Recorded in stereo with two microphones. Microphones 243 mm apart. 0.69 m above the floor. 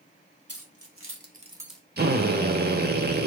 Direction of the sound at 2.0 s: 40° right (ahead or behind).